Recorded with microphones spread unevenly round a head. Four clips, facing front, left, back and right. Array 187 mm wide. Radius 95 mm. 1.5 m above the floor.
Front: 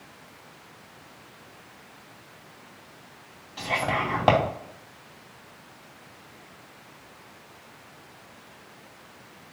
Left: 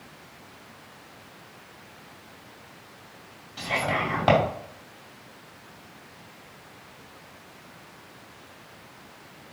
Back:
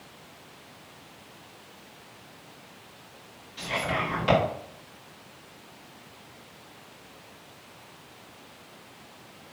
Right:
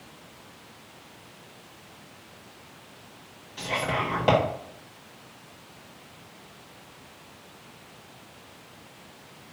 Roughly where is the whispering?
Ahead.